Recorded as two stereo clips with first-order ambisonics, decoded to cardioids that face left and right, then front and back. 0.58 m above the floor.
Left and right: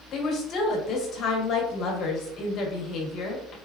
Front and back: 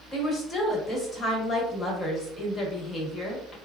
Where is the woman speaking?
65° left, 1.3 m.